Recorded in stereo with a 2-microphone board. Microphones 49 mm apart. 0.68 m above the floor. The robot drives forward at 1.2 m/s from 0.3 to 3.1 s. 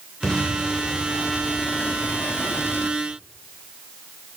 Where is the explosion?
20° left (ahead or behind), 3 m; by 3.0 s 40° left (ahead or behind), 1.4 m.